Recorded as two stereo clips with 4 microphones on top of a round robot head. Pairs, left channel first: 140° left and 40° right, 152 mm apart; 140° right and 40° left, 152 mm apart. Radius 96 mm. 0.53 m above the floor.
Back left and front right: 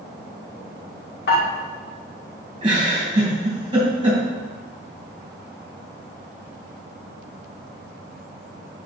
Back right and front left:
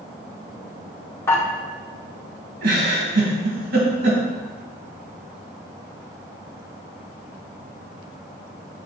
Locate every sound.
1.3 s dishes clattering: 145° left, 1.9 m
2.6 s a giggle: 20° left, 2.5 m